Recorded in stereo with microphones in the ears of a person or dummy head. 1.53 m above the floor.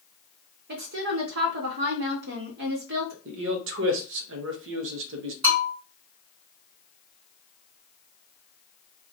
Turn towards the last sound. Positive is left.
turn(degrees=-35)  # may be behind; listen again after turning